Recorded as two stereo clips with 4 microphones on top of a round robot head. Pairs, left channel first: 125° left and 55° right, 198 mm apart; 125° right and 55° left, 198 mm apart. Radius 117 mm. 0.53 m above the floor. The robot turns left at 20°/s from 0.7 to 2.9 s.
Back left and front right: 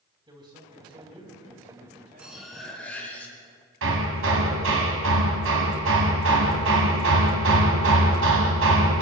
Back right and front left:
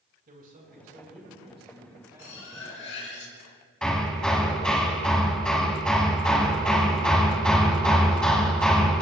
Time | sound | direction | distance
0.3 | a man speaking | 10° left | 5 m
2.2 | cutlery clinking | 140° right | 3.5 m
3.8 | hammering | 40° right | 1.8 m